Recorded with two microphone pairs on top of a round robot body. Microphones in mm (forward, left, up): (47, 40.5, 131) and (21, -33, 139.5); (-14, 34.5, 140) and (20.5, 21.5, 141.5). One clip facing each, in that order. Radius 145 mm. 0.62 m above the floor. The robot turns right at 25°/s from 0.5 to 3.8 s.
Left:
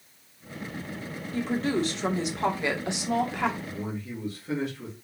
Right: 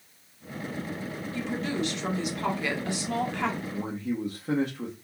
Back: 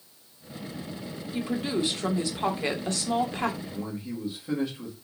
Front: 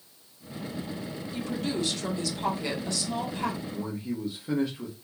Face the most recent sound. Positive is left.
turn(degrees=-95)